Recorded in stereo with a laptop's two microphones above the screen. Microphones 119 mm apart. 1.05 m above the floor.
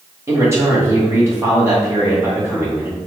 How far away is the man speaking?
About 1.7 m.